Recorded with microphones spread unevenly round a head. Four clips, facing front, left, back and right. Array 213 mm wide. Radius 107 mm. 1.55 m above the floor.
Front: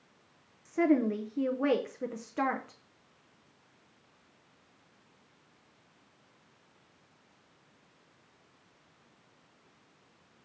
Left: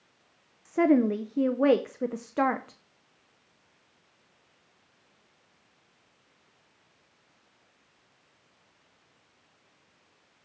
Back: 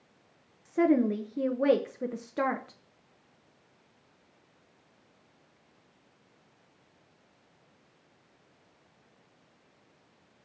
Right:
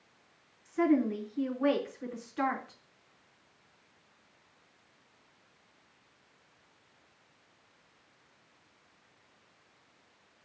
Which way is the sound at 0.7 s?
105° left.